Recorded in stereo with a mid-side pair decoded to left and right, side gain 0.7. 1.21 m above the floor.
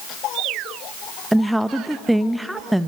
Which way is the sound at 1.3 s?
5° right.